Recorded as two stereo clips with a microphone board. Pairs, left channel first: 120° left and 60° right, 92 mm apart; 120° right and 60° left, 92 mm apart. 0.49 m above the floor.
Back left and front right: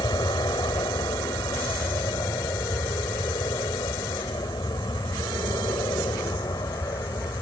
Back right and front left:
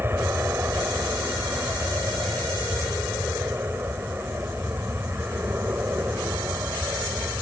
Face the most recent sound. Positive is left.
turn(degrees=115)